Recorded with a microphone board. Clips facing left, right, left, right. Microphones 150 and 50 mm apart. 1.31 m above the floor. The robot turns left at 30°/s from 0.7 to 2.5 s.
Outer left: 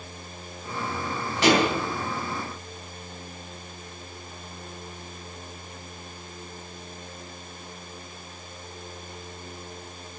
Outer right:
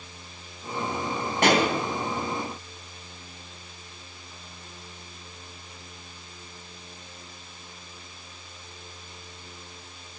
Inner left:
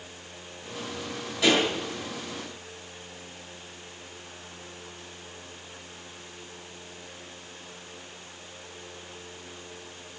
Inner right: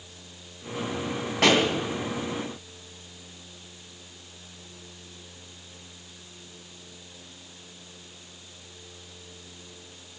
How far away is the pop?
About 3 m.